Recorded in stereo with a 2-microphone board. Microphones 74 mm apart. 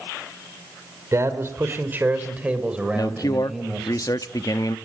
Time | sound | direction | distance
1.1 | a man speaking | 40° right (ahead or behind) | 3.5 m
3.0 | a man speaking | 50° left (ahead or behind) | 1.1 m